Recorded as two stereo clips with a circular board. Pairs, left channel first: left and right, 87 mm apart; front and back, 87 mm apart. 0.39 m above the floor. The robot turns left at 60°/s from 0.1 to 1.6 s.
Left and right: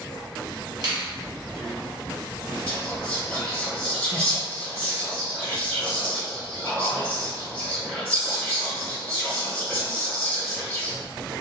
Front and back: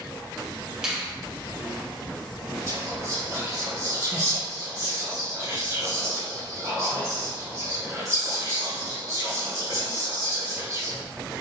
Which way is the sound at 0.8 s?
95° right.